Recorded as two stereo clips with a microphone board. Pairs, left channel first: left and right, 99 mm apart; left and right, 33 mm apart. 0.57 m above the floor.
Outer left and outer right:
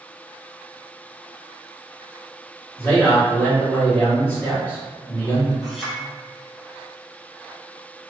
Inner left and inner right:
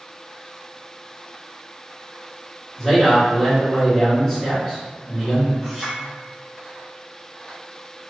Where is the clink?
Centre (ahead or behind), 1.1 m.